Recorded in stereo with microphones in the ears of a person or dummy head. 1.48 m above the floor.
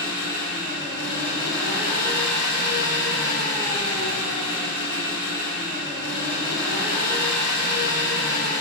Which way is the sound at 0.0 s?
55° left (ahead or behind).